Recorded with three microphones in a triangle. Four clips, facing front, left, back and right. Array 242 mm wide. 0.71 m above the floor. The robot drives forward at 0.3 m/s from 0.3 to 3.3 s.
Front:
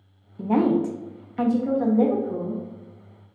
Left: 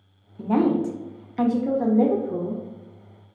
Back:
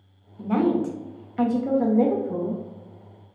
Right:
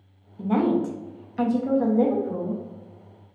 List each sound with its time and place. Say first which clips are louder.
0.4 s a woman speaking: left 1 dB, front 1 dB; 15° left, 0.6 m; by 2.6 s 165° left, 0.7 m